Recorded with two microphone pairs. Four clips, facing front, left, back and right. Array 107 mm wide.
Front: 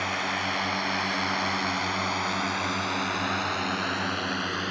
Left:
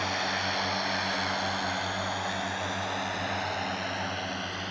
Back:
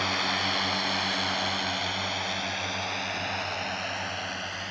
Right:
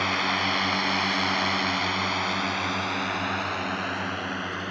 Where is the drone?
95° right; by 4.7 s 30° right.